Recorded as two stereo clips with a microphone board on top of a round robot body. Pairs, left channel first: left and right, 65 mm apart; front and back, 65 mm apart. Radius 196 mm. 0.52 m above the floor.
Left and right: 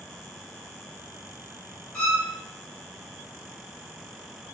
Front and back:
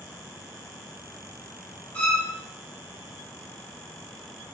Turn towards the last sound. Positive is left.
turn(degrees=30)